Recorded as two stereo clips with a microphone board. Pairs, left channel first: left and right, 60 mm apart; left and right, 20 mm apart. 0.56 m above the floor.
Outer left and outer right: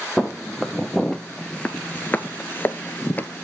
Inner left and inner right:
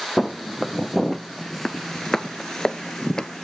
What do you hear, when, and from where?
0.2 s footsteps: 5° left (ahead or behind), 1.4 m; by 3.5 s 25° left (ahead or behind), 0.8 m